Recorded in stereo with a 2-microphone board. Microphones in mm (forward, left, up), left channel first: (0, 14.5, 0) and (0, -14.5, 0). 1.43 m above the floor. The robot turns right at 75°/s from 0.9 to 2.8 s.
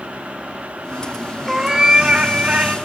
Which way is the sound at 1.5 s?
165° right.